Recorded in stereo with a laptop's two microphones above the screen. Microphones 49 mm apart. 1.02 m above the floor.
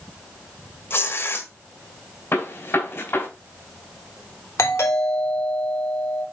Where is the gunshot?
60° left (ahead or behind), 2.5 m.